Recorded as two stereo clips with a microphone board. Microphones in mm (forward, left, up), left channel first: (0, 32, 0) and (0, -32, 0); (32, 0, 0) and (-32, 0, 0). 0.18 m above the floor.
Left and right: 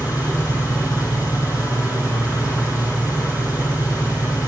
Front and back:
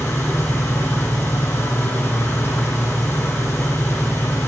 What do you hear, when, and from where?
0.0 s an engine running: 55° left, 6 m